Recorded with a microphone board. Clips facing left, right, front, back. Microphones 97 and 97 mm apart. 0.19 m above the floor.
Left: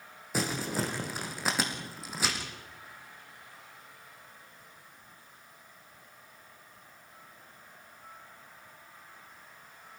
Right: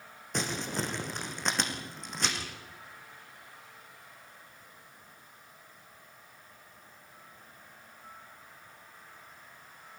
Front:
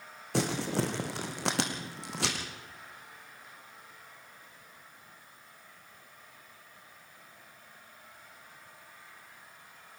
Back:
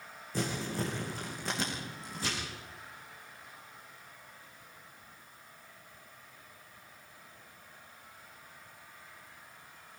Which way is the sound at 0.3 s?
5° left.